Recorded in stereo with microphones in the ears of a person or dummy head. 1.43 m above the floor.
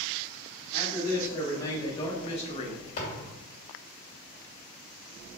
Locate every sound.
0.7 s a man speaking: 20° left (ahead or behind), 2 m; by 2.8 s 50° left (ahead or behind), 0.8 m
3.0 s a thud: 45° left (ahead or behind), 2.0 m